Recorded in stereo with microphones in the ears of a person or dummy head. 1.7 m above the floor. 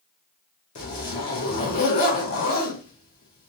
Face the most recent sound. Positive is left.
turn(degrees=40)  # may be behind; listen again after turning